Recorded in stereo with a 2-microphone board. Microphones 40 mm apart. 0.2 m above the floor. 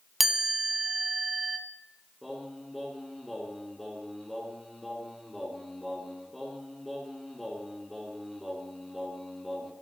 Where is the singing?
5° left (ahead or behind), 2.5 m.